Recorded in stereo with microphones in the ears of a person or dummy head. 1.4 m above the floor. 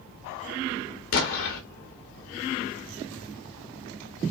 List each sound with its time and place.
1.1 s an explosion: 60° left (ahead or behind), 1.3 m